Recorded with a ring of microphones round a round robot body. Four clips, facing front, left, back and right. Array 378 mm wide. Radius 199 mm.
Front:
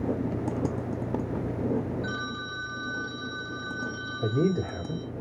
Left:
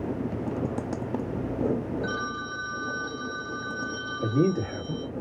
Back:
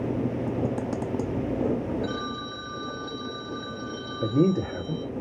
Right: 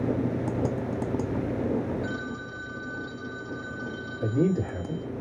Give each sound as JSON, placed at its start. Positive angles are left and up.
{"t": 2.0, "sound": "a phone ringing", "azimuth_deg": 150, "distance_m": 3.0}
{"t": 4.2, "sound": "a man speaking", "azimuth_deg": 165, "distance_m": 2.0}